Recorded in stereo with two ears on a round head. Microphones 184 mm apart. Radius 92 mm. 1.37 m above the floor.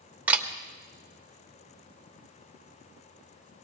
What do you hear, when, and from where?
0.3 s a camera shutter: 10° right (ahead or behind), 1.3 m